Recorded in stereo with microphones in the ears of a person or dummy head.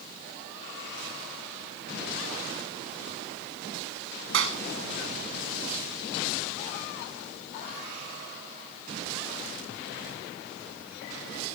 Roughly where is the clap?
Right.